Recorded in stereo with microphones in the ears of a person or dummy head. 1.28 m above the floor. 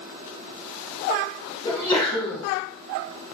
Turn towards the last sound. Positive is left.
turn(degrees=10)  # may be behind; listen again after turning